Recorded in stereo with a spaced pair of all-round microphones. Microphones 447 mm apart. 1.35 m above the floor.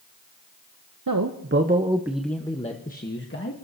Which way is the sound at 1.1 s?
45° right (ahead or behind).